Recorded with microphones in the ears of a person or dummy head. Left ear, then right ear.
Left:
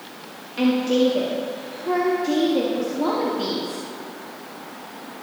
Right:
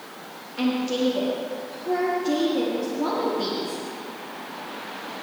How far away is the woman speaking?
About 1.8 m.